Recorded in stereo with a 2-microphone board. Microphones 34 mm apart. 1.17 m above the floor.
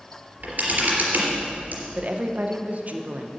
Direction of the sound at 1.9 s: 50° right (ahead or behind).